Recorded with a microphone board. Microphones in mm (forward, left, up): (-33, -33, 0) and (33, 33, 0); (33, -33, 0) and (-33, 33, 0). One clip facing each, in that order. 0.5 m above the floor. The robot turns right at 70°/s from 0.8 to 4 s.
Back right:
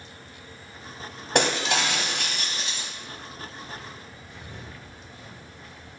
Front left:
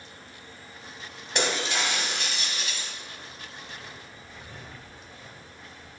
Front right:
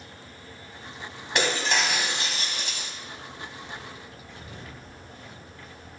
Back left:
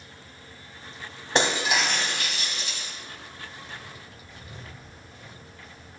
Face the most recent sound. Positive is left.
turn(degrees=-95)